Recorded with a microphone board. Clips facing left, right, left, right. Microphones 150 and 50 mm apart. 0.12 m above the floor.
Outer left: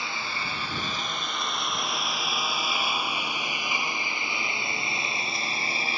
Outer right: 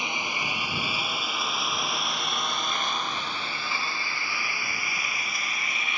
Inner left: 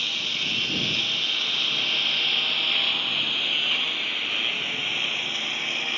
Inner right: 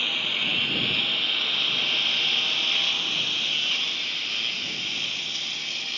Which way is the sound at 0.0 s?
20° right (ahead or behind).